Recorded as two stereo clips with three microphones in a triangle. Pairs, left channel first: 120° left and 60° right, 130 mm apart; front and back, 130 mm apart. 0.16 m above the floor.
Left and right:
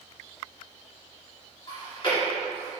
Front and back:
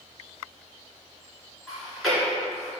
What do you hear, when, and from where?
1.7 s chewing: 90° left, 1.6 m